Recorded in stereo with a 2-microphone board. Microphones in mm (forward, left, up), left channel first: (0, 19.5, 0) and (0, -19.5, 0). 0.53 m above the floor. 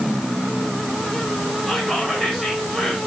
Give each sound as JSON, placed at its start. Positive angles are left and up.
{"t": 1.7, "sound": "whispering", "side_deg": 5, "distance_m": 1.6}